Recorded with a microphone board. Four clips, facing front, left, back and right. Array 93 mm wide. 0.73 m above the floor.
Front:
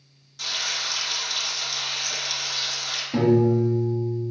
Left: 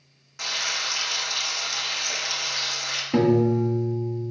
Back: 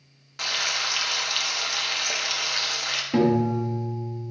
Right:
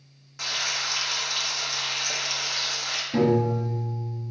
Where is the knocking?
No knocking in this recording.